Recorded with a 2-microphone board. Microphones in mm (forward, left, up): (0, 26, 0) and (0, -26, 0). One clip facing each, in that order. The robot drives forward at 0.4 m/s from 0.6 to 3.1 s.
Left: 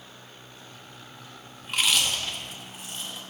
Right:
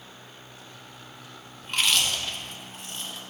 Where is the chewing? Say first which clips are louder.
Even; centre (ahead or behind), 0.8 m.